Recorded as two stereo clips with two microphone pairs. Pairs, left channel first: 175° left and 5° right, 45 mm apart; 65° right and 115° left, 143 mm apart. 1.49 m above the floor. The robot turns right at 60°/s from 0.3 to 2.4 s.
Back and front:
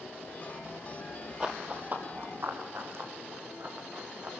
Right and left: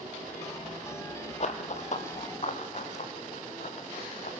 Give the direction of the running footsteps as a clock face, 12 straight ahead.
2 o'clock.